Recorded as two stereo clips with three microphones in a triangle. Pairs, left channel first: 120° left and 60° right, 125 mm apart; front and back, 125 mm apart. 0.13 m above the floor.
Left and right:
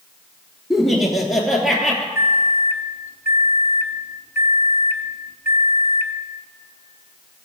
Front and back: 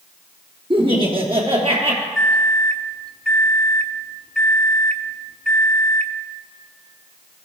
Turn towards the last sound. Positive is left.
turn(degrees=-70)